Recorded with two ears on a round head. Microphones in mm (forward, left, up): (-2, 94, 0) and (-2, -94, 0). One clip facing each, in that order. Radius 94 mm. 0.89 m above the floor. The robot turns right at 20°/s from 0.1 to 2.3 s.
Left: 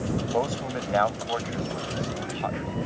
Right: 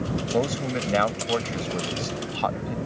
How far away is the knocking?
No knocking in this recording.